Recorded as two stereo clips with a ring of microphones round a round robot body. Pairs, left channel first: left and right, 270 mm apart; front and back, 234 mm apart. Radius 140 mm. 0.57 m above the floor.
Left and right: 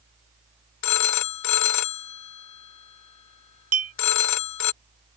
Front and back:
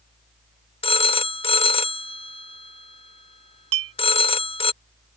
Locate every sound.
0.8 s a phone ringing: 65° left
3.7 s a clink: 150° right